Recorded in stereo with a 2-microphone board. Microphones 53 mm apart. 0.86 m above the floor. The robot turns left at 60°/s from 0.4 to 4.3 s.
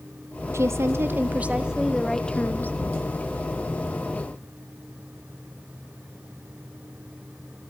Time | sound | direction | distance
0.5 | a woman speaking | 95° right | 1.0 m